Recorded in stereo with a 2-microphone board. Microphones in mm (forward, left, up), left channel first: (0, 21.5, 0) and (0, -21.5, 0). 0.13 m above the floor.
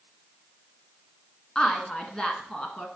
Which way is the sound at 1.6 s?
20° left (ahead or behind).